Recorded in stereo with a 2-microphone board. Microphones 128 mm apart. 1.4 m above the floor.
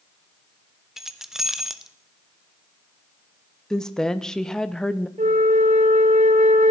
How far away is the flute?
About 1.1 m.